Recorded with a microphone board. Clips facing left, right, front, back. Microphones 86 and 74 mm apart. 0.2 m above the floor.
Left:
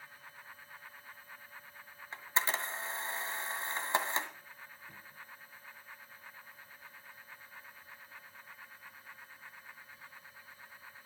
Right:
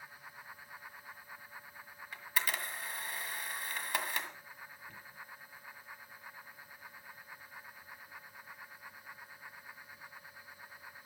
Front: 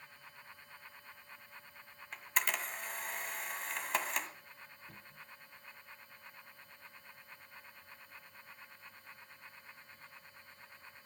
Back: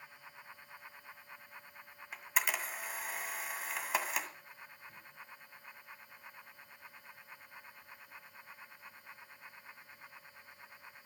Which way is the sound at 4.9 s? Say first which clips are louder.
Right 1 dB, back 1 dB; 5° left.